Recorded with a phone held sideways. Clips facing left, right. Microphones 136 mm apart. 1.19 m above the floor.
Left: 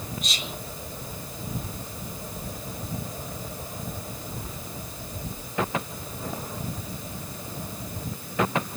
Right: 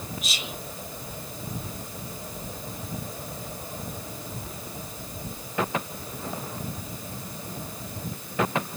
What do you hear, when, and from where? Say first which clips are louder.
0.2 s whispering: left 1 dB; 5° right (ahead or behind), 0.9 m